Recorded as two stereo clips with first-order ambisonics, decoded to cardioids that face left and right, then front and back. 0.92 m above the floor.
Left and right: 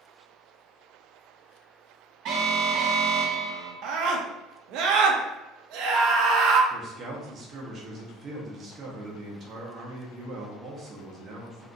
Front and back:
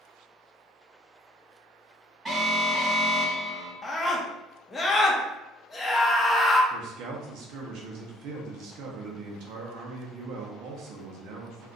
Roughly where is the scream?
Right.